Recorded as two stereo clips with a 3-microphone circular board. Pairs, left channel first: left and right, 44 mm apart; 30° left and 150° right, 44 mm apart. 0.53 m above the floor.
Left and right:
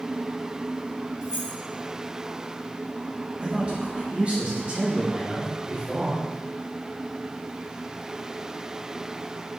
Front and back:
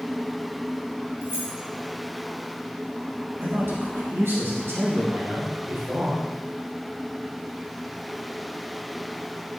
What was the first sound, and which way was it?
Keys jangling, 165° right.